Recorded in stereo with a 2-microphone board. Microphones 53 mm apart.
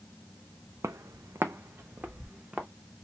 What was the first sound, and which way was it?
Footsteps, 70° right (ahead or behind).